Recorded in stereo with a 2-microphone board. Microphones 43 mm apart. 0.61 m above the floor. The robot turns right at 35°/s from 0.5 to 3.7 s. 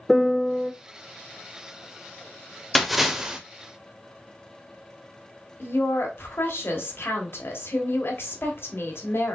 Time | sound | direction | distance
0.1 | a piano | centre (ahead or behind) | 0.5 m
2.8 | a splash | 5° left (ahead or behind) | 0.8 m
5.6 | a woman speaking | 65° left (ahead or behind) | 1.4 m